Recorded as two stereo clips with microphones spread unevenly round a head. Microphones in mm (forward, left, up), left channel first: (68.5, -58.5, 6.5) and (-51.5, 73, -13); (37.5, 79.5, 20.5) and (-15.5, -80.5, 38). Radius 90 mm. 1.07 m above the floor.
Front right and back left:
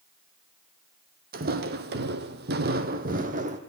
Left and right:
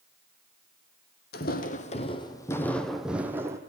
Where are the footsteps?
100° left, 1.7 m; by 3.6 s 175° right, 2.0 m.